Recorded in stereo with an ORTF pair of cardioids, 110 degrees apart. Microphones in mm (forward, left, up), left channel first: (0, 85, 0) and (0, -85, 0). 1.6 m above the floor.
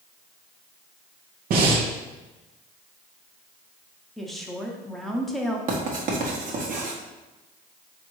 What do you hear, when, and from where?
1.5 s breathing: 65° right, 0.9 m
4.2 s a woman speaking: straight ahead, 0.8 m
5.7 s writing: 55° right, 1.2 m